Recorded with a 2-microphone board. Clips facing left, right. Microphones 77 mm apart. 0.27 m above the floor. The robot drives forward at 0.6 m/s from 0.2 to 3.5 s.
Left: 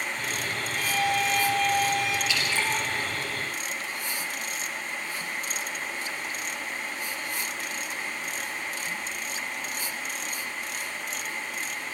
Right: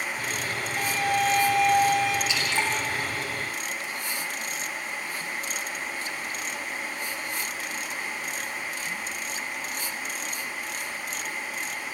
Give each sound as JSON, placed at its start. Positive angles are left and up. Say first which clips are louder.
{"t": 0.8, "sound": "a violin", "louder": "right 1 dB", "side_deg": -55, "distance_m": 6.0}
{"t": 2.3, "sound": "dripping", "louder": "right 1 dB", "side_deg": -20, "distance_m": 6.5}